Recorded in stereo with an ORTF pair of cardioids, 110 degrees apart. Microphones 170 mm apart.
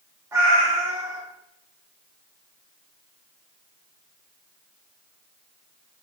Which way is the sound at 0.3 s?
15° right.